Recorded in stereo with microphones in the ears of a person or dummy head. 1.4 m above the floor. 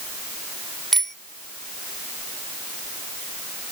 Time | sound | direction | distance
0.9 | a bicycle bell | centre (ahead or behind) | ?